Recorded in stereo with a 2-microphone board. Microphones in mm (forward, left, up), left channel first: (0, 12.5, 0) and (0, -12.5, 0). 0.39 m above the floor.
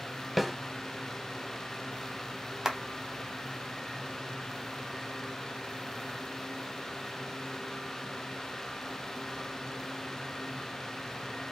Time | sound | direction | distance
0.4 | a snare drum | 5° left (ahead or behind) | 0.7 m
2.6 | a clap | 20° right (ahead or behind) | 1.0 m